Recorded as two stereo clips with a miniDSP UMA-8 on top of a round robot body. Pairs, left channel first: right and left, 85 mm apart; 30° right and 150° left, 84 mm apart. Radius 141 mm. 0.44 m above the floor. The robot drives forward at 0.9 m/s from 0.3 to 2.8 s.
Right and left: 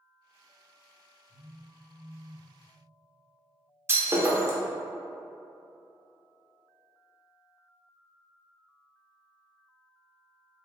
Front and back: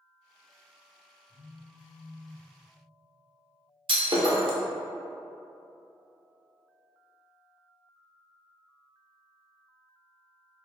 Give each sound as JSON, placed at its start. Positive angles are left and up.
{"t": 1.3, "sound": "a phone buzzing", "azimuth_deg": 120, "distance_m": 1.5}
{"t": 3.9, "sound": "breaking glass", "azimuth_deg": 145, "distance_m": 1.0}